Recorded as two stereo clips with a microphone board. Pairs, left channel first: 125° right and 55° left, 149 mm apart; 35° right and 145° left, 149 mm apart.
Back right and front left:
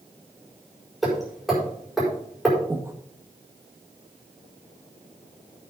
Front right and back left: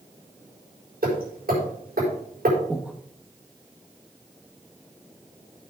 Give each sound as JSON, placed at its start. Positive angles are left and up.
{"t": 1.0, "sound": "hammering", "azimuth_deg": 145, "distance_m": 5.5}
{"t": 2.7, "sound": "breathing", "azimuth_deg": 80, "distance_m": 1.0}